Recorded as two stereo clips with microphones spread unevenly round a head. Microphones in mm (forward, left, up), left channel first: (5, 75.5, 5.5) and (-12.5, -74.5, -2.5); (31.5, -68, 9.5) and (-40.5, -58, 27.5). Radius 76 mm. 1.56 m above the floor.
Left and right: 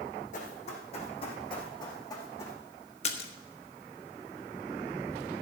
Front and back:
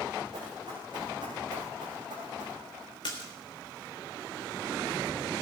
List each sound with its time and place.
0.3 s running footsteps: 120° left, 4.5 m; by 2.6 s 155° left, 4.5 m
3.0 s a splash: 45° left, 1.4 m